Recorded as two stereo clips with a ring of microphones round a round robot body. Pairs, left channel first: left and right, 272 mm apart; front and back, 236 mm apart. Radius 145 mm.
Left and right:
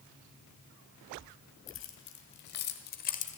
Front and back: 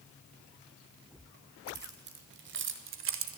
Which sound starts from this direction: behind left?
Keys jangling, at 1.7 s.